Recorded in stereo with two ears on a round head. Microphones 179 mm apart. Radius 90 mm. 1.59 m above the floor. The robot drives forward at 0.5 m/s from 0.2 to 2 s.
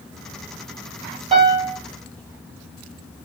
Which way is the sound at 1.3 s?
30° right (ahead or behind).